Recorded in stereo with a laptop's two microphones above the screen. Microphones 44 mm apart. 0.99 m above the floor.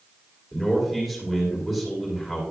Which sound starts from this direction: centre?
A man speaking, at 0.5 s.